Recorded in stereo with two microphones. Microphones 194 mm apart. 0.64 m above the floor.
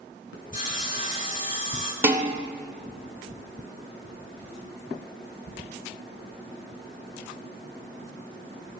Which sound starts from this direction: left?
Sawing, at 0.5 s.